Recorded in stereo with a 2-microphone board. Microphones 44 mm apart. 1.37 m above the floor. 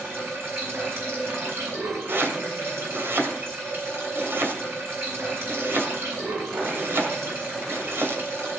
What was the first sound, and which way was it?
Running water, 70° right (ahead or behind).